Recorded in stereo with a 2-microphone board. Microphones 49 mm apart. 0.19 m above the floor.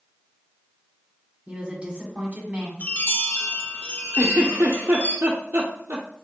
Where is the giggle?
55° right (ahead or behind), 1.2 m.